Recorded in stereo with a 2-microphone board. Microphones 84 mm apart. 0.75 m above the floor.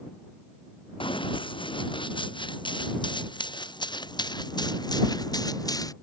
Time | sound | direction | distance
1.0 | running footsteps | 80° left | ?